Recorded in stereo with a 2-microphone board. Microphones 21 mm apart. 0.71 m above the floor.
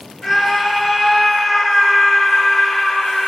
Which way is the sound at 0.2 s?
30° left (ahead or behind).